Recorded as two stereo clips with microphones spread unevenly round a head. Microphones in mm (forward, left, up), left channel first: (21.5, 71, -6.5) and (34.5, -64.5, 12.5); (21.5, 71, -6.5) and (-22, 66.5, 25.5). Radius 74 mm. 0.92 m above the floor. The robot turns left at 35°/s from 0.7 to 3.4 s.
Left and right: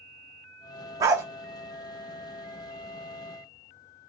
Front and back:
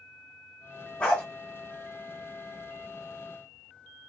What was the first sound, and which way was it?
A dog barking, 115° right.